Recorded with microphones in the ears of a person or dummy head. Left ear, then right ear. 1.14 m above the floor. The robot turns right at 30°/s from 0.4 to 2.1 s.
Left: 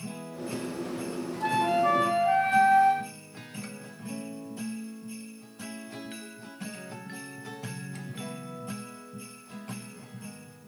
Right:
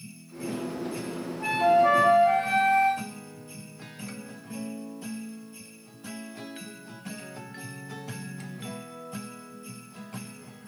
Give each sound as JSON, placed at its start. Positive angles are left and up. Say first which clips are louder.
{"t": 1.4, "sound": "a flute", "louder": "right 4 dB", "side_deg": -15, "distance_m": 0.7}